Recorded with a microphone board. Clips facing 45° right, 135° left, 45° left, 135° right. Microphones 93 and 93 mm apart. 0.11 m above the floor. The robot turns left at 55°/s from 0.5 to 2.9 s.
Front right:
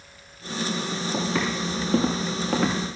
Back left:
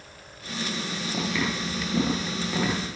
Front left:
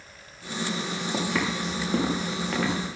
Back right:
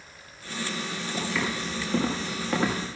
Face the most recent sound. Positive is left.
turn(degrees=-75)